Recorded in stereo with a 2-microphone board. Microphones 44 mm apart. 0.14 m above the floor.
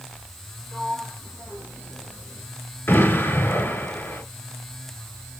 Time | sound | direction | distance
0.7 | a sliding door | 35° left (ahead or behind) | 3 m
2.9 | an explosion | 55° left (ahead or behind) | 2.5 m